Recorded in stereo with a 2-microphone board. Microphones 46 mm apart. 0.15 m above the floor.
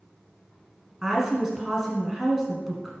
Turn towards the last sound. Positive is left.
turn(degrees=-10)  # may be behind; listen again after turning